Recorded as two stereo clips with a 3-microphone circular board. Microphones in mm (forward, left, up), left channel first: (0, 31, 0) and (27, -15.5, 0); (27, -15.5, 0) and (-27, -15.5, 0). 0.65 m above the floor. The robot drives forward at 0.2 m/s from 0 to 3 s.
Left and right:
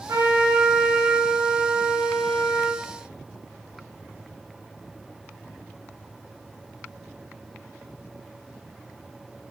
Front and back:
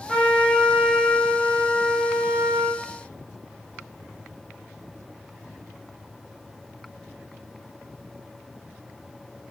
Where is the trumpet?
80° right, 0.5 m; by 2.8 s 130° right, 0.7 m.